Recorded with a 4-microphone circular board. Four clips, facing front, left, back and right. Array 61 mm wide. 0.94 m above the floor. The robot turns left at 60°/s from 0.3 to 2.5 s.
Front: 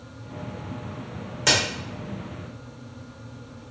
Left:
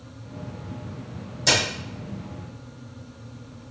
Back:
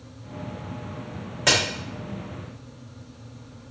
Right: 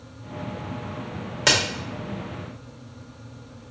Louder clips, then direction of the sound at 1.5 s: Right 1 dB, back 1 dB; 105° right.